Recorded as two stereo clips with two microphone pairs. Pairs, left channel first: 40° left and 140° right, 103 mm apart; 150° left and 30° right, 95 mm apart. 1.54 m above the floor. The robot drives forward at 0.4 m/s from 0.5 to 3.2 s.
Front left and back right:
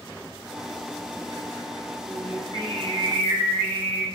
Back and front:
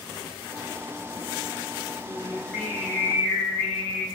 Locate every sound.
2.0 s singing: 120° right, 1.9 m; by 4.0 s 135° right, 2 m